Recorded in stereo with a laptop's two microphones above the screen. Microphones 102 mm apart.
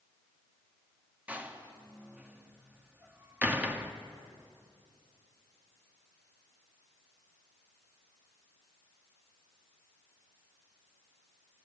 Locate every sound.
1.3 s a door slam: 15° right (ahead or behind), 1.5 m